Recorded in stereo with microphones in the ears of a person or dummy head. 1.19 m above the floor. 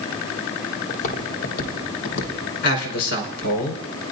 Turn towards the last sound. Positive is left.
turn(degrees=55)  # may be behind; listen again after turning